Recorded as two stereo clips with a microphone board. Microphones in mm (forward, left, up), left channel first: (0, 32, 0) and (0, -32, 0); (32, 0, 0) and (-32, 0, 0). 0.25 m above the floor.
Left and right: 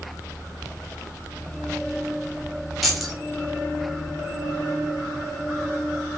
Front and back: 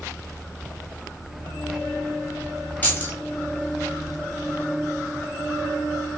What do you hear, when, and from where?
2.8 s keys jangling: straight ahead, 0.7 m